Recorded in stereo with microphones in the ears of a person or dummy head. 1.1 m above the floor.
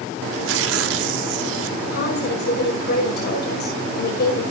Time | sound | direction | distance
0.3 | tearing paper | 85° right | 1.8 m
1.9 | a woman speaking | 60° left (ahead or behind) | 5 m